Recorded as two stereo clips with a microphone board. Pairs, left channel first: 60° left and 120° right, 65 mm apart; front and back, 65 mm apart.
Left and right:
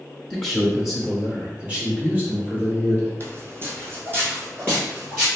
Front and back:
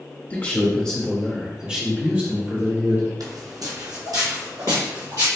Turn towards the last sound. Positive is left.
turn(degrees=-175)